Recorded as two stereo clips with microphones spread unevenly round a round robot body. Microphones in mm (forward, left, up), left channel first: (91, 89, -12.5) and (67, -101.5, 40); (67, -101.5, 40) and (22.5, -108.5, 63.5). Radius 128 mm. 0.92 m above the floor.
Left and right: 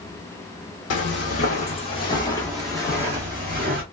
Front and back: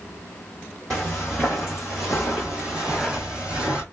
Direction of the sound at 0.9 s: 120° left.